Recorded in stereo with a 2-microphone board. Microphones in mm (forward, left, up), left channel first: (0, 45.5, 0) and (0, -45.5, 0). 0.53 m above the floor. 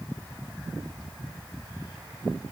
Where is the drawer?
I don't hear a drawer.